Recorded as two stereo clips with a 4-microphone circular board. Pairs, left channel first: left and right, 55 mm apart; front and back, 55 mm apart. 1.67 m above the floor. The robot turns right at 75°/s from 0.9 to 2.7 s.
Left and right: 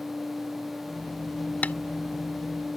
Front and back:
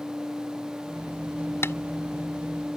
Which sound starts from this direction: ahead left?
Tapping, at 1.6 s.